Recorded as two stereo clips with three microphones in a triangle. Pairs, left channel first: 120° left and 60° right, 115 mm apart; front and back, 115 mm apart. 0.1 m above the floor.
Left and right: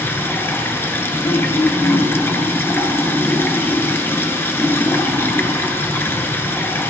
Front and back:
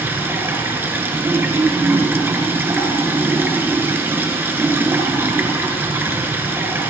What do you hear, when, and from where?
0.0 s running water: 150° left, 1.3 m
1.2 s throat clearing: 130° left, 2 m